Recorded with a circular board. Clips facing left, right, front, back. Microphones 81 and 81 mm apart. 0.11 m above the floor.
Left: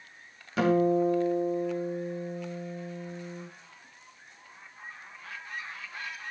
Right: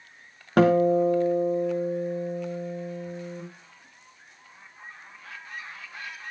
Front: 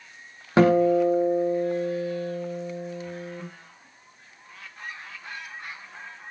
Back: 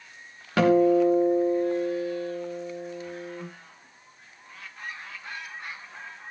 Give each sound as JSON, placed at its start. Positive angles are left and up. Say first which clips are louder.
{"t": 0.6, "sound": "a guitar", "louder": "right 5 dB, front 1 dB", "azimuth_deg": -65, "distance_m": 3.0}